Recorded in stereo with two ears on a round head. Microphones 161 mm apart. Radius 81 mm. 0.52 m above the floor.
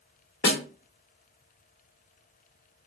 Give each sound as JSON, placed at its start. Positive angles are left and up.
{"t": 0.4, "sound": "a snare drum", "side_deg": 65, "distance_m": 0.9}